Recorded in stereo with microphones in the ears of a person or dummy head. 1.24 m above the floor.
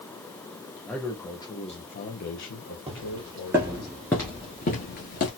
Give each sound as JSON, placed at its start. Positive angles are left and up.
{"t": 0.9, "sound": "a man speaking", "side_deg": 5, "distance_m": 1.0}
{"t": 2.9, "sound": "footsteps", "side_deg": -25, "distance_m": 2.0}